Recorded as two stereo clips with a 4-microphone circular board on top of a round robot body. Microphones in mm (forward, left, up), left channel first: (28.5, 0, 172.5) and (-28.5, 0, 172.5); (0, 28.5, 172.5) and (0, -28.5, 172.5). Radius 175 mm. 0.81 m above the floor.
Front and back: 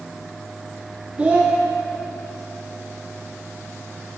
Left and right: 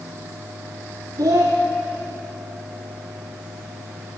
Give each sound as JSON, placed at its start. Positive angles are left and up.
{"t": 1.2, "sound": "a child speaking", "azimuth_deg": -110, "distance_m": 0.8}